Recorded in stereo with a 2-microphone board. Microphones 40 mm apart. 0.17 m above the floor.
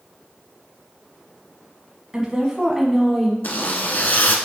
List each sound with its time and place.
2.1 s a woman speaking: 20° right (ahead or behind), 1.1 m; by 3.3 s centre (ahead or behind), 1.2 m
3.4 s a zipper: 50° left (ahead or behind), 0.9 m